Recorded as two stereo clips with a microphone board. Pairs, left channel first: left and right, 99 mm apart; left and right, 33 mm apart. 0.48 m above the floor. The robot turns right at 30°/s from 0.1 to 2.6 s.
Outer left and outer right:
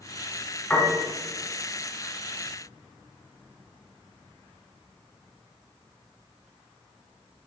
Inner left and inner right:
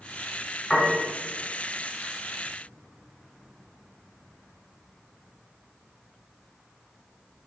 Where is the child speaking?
I don't hear a child speaking.